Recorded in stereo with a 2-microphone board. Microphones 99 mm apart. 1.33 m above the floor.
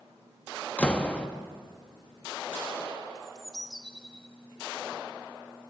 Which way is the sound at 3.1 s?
Centre (ahead or behind).